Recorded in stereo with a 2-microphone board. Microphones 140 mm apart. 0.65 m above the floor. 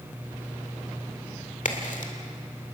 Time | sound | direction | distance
1.6 | a crack | 65° left (ahead or behind) | 2 m